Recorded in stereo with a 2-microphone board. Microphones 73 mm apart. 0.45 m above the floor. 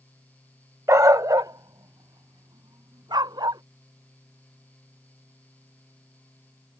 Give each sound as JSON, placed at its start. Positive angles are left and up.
{"t": 0.9, "sound": "a dog barking", "side_deg": -45}